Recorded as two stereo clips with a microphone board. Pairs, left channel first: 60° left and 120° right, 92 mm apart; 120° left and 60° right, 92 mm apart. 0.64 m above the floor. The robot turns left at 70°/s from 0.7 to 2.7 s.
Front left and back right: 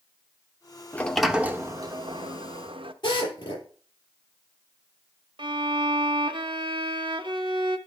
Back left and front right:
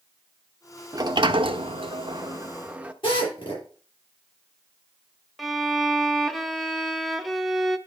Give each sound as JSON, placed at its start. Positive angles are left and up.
{"t": 0.9, "sound": "a sliding door", "azimuth_deg": -10, "distance_m": 0.8}
{"t": 3.0, "sound": "a drill", "azimuth_deg": 95, "distance_m": 8.5}
{"t": 5.4, "sound": "a violin", "azimuth_deg": -150, "distance_m": 0.9}